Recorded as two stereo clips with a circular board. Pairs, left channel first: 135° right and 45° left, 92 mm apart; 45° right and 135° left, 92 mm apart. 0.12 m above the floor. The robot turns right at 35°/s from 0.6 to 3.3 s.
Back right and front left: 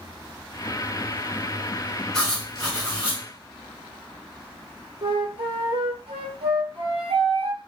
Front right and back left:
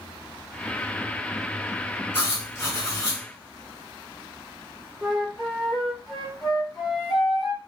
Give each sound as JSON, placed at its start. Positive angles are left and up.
{"t": 2.1, "sound": "writing", "azimuth_deg": -65, "distance_m": 1.8}
{"t": 5.0, "sound": "a flute", "azimuth_deg": 45, "distance_m": 0.8}